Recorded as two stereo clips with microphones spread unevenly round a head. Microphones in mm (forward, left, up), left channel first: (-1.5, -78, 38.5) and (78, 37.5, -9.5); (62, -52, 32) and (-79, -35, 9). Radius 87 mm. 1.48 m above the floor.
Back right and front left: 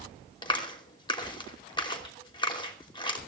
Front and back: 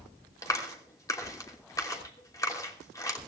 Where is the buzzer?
I don't hear a buzzer.